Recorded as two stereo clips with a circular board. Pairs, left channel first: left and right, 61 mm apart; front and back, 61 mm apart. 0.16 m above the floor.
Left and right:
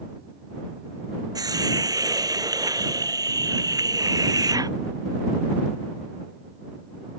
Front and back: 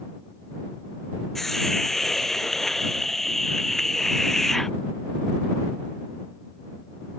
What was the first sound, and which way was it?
A hiss, 85° right.